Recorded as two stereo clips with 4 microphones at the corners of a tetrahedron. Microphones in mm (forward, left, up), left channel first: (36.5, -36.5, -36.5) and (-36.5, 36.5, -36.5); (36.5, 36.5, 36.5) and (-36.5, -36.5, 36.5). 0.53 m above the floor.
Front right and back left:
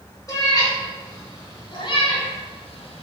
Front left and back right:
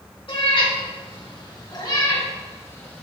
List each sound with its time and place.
0.3 s a cat meowing: 10° left, 3 m; by 3.0 s 30° right, 1.4 m